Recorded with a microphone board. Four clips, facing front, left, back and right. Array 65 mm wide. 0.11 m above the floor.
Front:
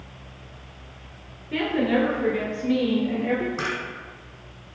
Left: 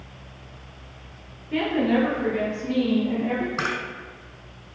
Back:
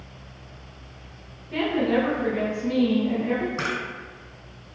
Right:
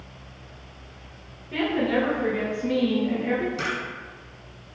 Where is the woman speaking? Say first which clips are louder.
Left 2 dB, even; 10° left, 1.7 m; by 3.5 s 35° right, 2 m.